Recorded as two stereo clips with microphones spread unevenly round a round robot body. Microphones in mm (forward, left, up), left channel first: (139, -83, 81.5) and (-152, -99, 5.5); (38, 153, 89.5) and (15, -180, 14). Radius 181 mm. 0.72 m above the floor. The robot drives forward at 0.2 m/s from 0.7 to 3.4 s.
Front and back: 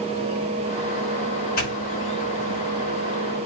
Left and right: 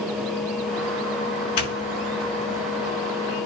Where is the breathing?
I don't hear breathing.